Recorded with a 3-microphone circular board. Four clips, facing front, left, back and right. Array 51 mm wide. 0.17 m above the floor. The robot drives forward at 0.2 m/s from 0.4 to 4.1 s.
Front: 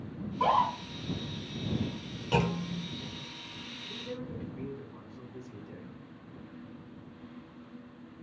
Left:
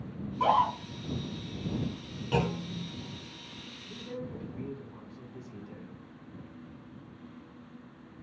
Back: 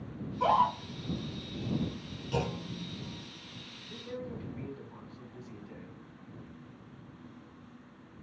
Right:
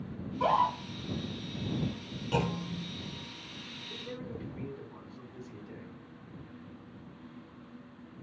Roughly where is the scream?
Ahead left.